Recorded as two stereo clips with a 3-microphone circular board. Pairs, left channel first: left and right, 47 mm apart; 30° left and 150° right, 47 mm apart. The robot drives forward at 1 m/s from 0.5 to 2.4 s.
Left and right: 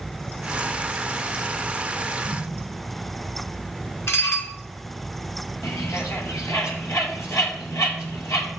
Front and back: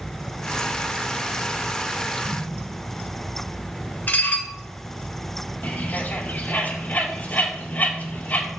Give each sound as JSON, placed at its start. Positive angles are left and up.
{"t": 2.2, "sound": "an explosion", "azimuth_deg": 75, "distance_m": 3.5}
{"t": 4.1, "sound": "dishes clattering", "azimuth_deg": 75, "distance_m": 1.9}
{"t": 5.6, "sound": "a bird", "azimuth_deg": 85, "distance_m": 2.0}